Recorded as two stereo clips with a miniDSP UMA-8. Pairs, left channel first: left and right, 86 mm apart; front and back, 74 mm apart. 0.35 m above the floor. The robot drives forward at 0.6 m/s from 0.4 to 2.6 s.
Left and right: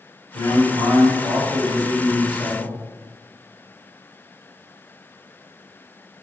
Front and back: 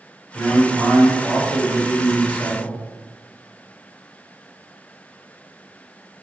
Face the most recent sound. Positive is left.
turn(degrees=-130)